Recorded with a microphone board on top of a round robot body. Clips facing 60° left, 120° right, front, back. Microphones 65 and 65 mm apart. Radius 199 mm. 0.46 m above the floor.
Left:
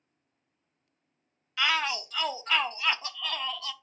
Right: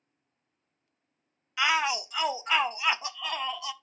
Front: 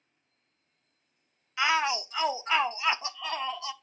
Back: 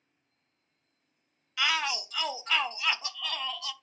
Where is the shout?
50° right, 0.8 m.